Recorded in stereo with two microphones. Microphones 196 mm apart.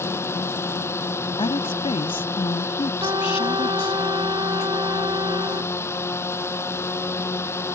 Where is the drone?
10° left (ahead or behind).